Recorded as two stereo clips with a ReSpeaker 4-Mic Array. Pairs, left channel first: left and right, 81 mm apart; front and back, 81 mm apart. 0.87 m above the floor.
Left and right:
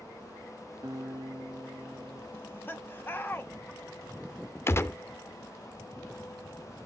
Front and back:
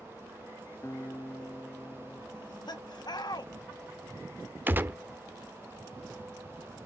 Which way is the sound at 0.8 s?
55° right.